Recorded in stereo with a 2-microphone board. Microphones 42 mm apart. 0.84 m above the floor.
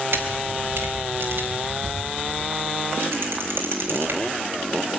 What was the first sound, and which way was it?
A camera shutter, 60° right (ahead or behind).